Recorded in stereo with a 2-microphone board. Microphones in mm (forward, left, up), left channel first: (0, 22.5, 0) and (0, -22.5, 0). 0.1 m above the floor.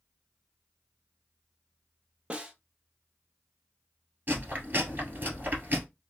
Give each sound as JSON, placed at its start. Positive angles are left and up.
{"t": 2.3, "sound": "a snare drum", "side_deg": -25, "distance_m": 0.6}
{"t": 4.3, "sound": "chewing", "side_deg": -40, "distance_m": 1.3}